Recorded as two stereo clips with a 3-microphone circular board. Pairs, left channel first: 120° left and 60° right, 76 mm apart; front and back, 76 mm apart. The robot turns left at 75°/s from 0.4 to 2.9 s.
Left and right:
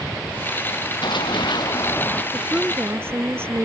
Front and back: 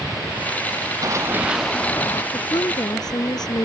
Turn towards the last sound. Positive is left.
turn(degrees=-5)